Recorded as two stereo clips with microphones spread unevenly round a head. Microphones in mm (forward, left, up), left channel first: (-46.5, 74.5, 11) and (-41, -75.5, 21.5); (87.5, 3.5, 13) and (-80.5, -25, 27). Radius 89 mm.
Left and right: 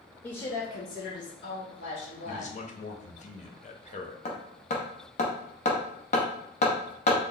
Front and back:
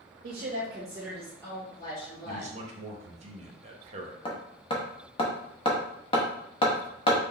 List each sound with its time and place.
0.2 s a woman speaking: 165° left, 0.6 m; by 2.5 s 75° left, 1.8 m
2.2 s a man speaking: 135° left, 0.8 m
4.2 s hammering: 65° left, 0.7 m